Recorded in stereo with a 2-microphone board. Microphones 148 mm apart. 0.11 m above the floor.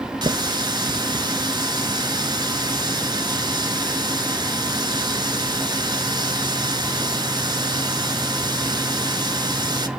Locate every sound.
0.2 s a running tap: 30° right (ahead or behind), 0.8 m